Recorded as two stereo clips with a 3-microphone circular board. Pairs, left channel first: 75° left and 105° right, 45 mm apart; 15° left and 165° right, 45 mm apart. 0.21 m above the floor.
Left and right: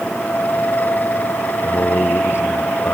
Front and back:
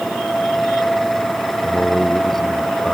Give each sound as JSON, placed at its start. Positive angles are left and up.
{"t": 1.6, "sound": "a man speaking", "azimuth_deg": 100}